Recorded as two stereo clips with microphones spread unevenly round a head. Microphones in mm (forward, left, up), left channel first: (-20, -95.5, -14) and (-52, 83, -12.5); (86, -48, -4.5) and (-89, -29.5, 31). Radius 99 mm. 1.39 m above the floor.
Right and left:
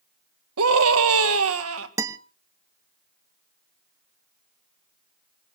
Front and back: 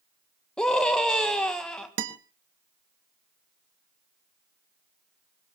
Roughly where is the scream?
Left.